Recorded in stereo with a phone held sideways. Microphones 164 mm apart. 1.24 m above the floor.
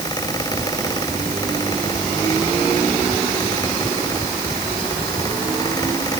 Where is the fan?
25° left (ahead or behind).